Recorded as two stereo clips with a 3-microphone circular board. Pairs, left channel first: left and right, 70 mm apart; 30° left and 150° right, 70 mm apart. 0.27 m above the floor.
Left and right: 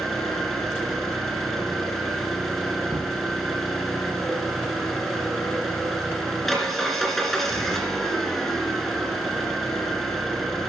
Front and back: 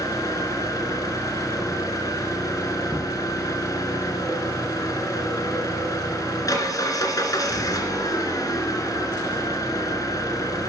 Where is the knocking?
55° right, 1.6 m.